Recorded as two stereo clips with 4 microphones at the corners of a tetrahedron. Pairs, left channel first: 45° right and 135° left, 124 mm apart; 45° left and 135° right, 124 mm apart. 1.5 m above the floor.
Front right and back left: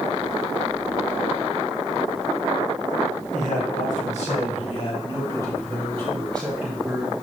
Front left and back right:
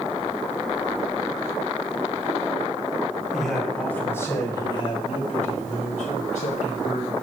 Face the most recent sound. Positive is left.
turn(degrees=50)